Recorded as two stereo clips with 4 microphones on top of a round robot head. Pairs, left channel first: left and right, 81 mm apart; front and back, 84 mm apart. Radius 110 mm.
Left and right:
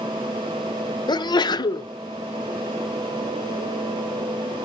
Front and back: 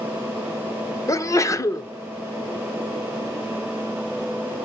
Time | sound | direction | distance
1.1 | a sneeze | 55° left | 0.7 m